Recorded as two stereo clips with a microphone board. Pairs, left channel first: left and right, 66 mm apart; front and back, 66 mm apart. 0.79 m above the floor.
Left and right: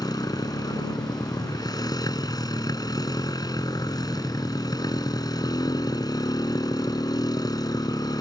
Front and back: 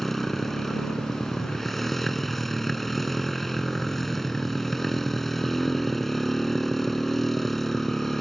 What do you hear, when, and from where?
0.0 s a motorcycle: 90° left